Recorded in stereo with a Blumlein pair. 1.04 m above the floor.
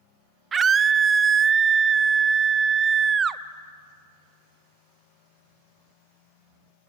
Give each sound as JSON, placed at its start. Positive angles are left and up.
{"t": 0.5, "sound": "a scream", "azimuth_deg": -20, "distance_m": 0.8}